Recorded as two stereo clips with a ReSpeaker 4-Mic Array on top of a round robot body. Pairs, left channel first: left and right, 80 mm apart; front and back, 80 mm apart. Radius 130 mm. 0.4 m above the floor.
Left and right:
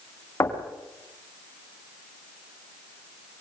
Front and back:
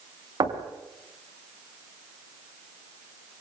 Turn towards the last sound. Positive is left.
turn(degrees=145)